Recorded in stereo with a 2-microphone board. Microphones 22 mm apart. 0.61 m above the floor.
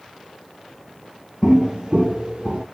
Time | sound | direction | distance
1.4 | footsteps | 35° right (ahead or behind) | 0.7 m